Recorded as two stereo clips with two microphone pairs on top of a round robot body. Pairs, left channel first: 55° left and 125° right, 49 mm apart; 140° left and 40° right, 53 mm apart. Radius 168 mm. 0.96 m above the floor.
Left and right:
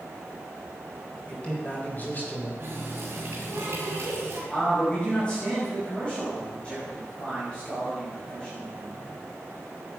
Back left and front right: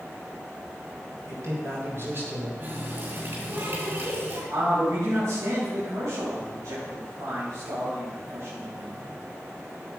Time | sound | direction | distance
1.3 | a man speaking | 10° right | 4.5 m
2.6 | a running tap | 85° right | 7 m
4.5 | a man speaking | 15° right | 6 m